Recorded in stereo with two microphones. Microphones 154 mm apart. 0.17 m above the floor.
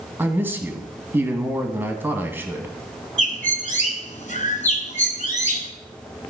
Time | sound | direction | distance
0.2 | a man speaking | 15° right (ahead or behind) | 1.0 m
3.2 | a bird | 50° left (ahead or behind) | 1.1 m